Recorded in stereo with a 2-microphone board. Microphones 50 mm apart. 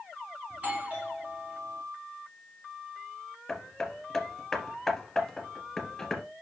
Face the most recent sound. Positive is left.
turn(degrees=5)  # may be behind; listen again after turning